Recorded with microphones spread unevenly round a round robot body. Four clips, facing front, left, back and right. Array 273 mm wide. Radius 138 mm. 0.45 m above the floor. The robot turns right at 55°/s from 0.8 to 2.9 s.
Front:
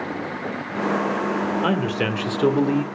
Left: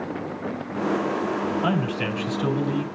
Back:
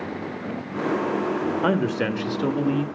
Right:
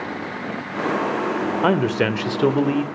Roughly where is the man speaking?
Right.